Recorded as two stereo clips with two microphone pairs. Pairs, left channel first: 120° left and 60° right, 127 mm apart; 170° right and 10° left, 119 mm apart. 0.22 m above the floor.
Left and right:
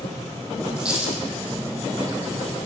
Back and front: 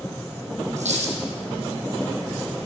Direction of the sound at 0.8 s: 15° left.